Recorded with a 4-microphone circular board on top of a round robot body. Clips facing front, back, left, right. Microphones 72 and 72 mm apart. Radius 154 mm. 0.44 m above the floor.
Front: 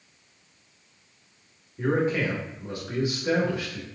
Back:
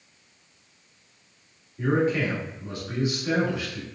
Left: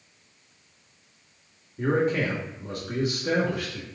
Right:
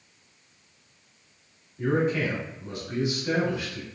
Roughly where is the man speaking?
Ahead left.